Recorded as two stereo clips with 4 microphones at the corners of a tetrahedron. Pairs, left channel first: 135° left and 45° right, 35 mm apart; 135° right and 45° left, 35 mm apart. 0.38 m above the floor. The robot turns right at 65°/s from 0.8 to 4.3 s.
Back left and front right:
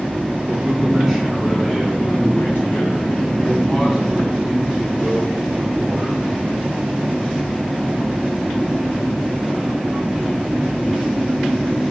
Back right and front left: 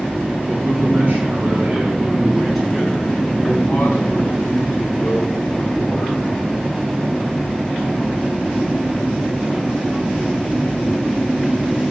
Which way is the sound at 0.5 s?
15° left.